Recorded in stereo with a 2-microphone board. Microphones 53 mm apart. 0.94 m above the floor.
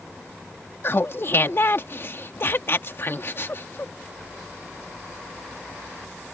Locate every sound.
0.8 s laughter: 50° left (ahead or behind)